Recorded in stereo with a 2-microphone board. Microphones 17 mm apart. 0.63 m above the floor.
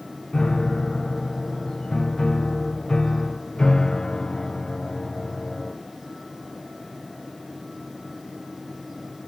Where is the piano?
50° left (ahead or behind), 1.3 m.